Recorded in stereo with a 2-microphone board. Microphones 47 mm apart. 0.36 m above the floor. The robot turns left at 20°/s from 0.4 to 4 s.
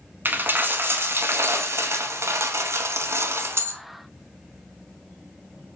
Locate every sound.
0.2 s a dropped coin: 50° right, 0.8 m; by 3.8 s 115° right, 0.8 m